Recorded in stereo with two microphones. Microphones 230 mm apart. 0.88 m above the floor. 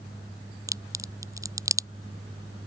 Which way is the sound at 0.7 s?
15° right (ahead or behind).